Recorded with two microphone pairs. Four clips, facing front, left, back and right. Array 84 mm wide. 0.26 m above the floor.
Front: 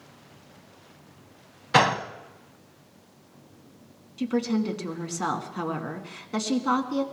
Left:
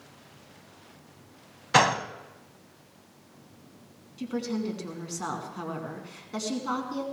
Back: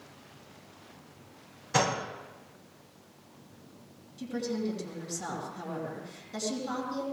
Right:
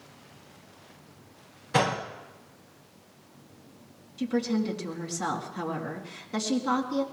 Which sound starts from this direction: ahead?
A woman speaking, at 4.2 s.